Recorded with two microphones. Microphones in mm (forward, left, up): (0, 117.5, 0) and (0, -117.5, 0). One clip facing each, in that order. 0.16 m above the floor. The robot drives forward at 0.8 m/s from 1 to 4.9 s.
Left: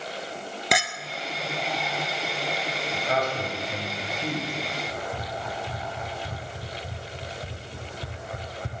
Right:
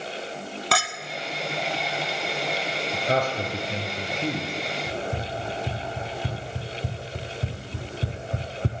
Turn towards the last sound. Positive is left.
turn(degrees=-70)  # may be behind; listen again after turning